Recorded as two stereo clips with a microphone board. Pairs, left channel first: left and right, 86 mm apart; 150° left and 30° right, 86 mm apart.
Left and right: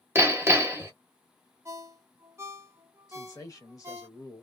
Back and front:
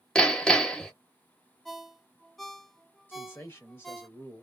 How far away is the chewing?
I don't hear chewing.